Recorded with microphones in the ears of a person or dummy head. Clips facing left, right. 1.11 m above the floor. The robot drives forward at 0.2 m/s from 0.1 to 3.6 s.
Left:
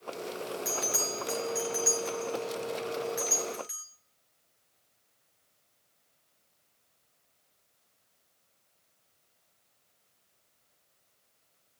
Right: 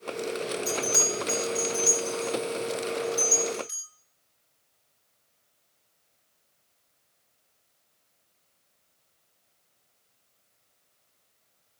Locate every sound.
0.7 s a bell: 15° left (ahead or behind), 3 m